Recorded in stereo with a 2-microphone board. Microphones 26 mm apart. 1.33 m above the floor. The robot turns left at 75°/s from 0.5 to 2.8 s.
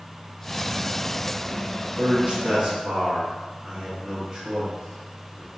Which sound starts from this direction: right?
A man speaking, at 2.0 s.